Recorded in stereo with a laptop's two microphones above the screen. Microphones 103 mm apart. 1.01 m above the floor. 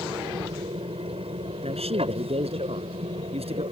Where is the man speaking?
75° right (ahead or behind).